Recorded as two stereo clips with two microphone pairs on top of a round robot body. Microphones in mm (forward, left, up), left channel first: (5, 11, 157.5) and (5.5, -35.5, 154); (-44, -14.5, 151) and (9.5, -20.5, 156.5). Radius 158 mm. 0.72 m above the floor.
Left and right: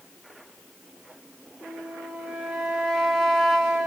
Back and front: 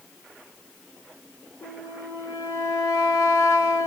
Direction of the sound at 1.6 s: 170° right.